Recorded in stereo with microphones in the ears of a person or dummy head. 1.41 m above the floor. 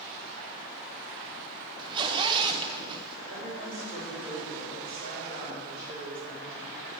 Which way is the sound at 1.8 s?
25° right (ahead or behind).